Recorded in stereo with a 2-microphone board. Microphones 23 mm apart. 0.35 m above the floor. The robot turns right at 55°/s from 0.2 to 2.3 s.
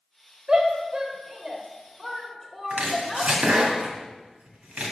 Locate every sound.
0.5 s a shout: 30° right (ahead or behind), 1.2 m; by 3.3 s centre (ahead or behind), 1.2 m
2.7 s chopping: 65° right (ahead or behind), 1.6 m